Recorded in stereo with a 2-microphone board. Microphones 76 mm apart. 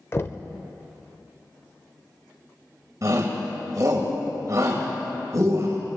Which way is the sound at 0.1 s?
35° left (ahead or behind).